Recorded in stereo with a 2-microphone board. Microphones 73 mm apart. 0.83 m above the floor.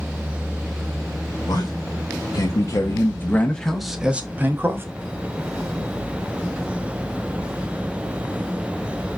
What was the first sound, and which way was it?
A man speaking, 70° left (ahead or behind).